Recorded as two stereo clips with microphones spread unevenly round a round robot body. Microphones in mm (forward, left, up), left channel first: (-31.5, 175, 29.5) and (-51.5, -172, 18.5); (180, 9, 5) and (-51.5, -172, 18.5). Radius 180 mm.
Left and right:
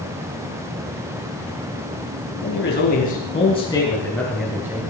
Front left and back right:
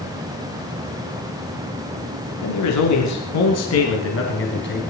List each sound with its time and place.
2.4 s a man speaking: 25° left, 3.5 m; by 4.9 s 15° right, 2.5 m